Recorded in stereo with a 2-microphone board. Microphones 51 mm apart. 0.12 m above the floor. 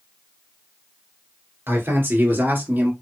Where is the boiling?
No boiling in this recording.